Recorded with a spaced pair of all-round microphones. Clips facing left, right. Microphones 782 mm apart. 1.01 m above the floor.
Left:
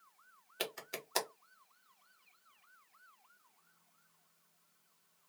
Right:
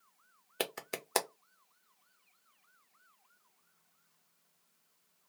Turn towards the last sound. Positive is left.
turn(degrees=-75)  # may be behind; listen again after turning